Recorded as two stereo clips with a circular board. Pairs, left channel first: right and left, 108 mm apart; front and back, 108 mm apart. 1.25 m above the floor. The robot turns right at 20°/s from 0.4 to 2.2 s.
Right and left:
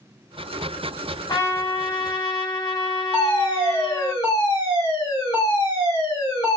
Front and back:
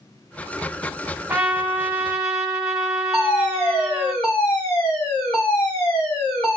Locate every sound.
1.3 s a trumpet: 115° right, 1.1 m; by 4.1 s 95° right, 1.1 m
3.1 s a fire alarm: 45° right, 1.9 m